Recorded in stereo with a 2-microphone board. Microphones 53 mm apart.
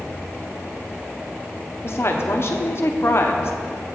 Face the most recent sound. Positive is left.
turn(degrees=50)  # may be behind; listen again after turning